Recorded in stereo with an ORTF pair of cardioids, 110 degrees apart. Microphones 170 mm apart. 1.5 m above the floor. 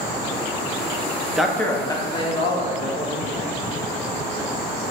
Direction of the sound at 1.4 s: 5° right.